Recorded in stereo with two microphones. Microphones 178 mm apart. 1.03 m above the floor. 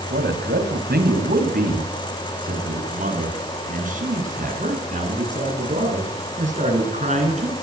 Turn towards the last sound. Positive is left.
turn(degrees=-40)  # may be behind; listen again after turning